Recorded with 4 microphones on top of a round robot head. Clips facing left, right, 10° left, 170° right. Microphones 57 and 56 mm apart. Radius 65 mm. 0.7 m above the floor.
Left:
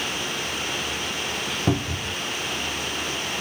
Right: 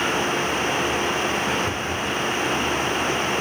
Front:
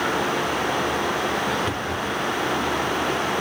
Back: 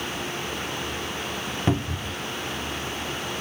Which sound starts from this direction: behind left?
A cupboard door, at 1.7 s.